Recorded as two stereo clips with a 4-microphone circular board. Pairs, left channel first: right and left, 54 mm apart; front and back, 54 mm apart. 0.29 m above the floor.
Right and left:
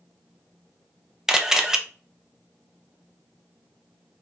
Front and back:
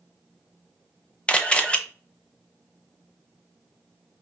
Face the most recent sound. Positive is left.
turn(degrees=30)